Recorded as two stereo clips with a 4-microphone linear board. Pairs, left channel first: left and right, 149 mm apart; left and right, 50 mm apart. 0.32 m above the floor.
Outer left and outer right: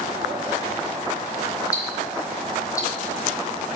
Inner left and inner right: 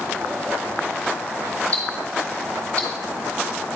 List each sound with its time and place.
1.7 s ticking: 20° left (ahead or behind), 3 m